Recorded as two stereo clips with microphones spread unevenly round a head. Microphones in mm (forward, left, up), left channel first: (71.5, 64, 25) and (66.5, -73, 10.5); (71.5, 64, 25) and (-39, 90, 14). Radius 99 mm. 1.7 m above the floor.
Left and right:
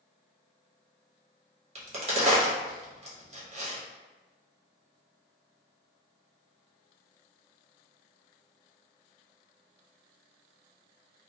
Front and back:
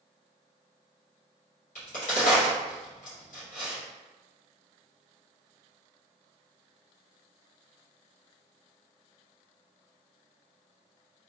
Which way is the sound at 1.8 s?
45° right.